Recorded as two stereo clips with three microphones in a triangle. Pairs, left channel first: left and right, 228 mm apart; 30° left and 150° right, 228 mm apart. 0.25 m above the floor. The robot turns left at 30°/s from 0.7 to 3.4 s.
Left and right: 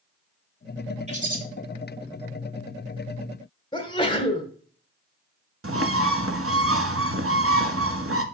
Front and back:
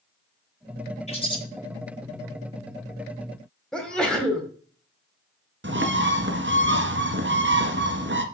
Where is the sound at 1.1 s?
30° right, 4 m; by 1.4 s 40° right, 4 m.